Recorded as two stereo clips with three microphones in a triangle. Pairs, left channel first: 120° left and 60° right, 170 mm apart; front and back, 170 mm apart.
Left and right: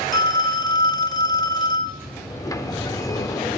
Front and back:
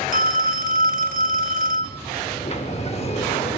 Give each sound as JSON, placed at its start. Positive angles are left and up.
{"t": 0.1, "sound": "a phone ringing", "azimuth_deg": 180, "distance_m": 0.6}
{"t": 2.3, "sound": "a sliding door", "azimuth_deg": 50, "distance_m": 0.6}